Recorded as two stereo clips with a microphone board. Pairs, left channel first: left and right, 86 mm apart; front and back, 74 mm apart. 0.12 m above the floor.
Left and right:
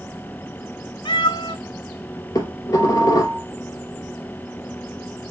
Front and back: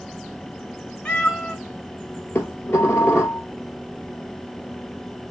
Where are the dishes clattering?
50° left, 1.4 m.